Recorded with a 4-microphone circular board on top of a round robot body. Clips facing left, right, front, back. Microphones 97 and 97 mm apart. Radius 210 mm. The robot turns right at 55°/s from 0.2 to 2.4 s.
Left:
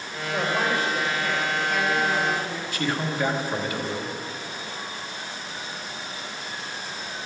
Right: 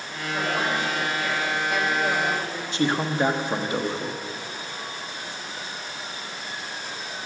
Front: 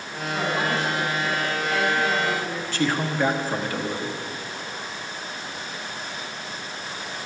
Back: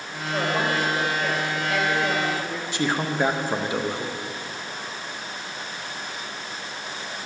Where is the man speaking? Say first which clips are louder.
Right 4 dB, even; 125° right, 1.3 m.